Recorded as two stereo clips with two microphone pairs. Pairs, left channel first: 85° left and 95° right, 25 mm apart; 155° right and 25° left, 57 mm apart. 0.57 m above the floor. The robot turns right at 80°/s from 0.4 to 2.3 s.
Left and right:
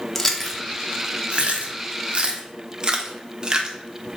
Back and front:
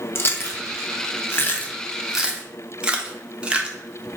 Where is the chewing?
165° left, 0.7 m; by 3.8 s 40° right, 0.7 m.